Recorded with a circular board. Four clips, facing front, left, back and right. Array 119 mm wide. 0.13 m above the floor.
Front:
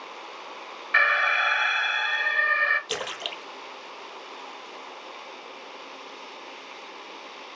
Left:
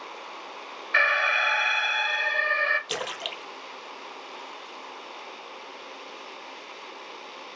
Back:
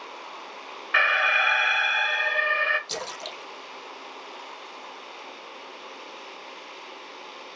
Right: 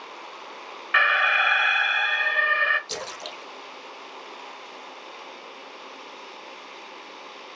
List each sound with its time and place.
0.9 s an alarm: 105° right, 1.8 m
2.9 s a splash: 35° left, 0.6 m